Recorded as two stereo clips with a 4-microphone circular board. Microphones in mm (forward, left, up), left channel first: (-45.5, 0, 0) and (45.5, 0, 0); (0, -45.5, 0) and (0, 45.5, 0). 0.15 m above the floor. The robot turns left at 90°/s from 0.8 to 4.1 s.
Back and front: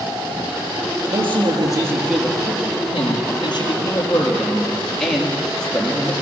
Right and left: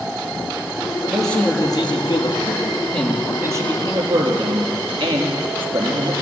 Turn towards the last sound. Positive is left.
turn(degrees=95)